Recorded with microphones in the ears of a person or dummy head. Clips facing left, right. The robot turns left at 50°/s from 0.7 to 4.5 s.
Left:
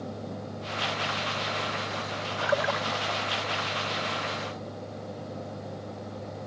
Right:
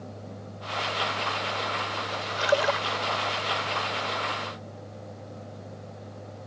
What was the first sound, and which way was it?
A splash, 35° right (ahead or behind).